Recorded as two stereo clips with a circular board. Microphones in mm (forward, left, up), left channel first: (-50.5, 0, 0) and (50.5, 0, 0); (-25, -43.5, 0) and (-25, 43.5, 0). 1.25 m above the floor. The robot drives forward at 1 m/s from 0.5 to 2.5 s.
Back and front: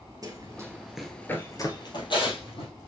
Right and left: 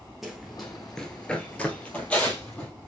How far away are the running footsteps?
About 1.5 m.